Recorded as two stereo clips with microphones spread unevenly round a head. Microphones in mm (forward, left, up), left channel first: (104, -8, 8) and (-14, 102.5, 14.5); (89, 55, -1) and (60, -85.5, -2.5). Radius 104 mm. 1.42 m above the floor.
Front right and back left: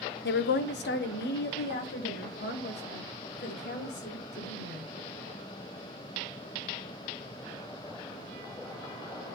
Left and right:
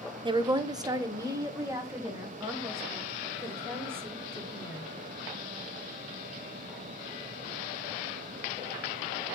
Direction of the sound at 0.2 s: 45° right.